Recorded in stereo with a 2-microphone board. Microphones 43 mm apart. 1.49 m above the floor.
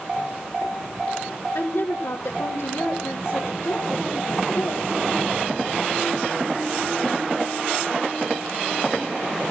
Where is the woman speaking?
80° left, 1.7 m.